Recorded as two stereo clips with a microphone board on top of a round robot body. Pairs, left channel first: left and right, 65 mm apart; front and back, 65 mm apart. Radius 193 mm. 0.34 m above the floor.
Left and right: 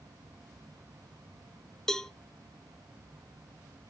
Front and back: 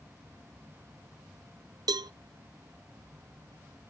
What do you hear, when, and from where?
1.9 s a cowbell: 170° left, 0.7 m